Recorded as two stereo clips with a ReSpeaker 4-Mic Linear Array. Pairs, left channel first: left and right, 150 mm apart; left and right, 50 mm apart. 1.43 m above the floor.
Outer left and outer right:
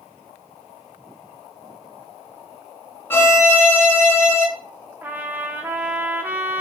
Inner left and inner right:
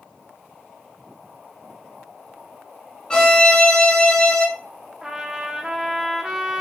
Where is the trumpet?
15° right (ahead or behind), 0.6 m.